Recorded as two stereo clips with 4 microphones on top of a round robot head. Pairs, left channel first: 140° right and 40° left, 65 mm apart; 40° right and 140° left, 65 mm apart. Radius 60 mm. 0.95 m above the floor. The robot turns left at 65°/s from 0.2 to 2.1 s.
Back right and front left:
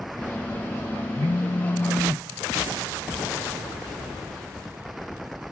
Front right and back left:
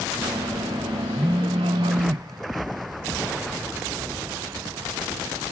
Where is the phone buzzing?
140° right, 0.5 m; by 2.2 s 160° left, 0.5 m.